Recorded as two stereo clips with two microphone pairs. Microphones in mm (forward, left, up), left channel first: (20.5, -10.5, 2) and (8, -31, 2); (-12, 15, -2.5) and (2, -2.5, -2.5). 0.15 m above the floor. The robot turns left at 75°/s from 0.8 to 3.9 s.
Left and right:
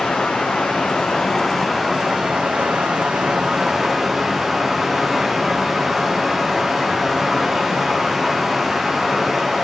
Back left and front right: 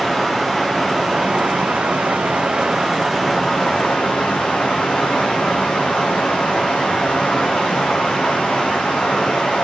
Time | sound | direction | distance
0.0 | running water | 25° left | 2 m